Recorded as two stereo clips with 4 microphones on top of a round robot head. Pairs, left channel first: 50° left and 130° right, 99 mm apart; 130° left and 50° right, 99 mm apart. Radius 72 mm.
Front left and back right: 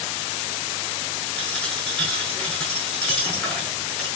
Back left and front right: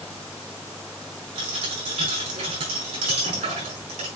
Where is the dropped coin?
30° right, 6 m.